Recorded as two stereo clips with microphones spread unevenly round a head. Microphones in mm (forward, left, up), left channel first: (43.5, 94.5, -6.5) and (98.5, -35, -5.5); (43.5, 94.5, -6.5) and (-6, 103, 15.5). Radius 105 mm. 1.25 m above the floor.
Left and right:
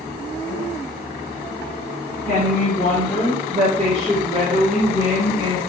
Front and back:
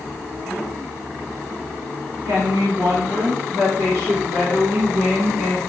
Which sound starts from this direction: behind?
A woman speaking, at 2.2 s.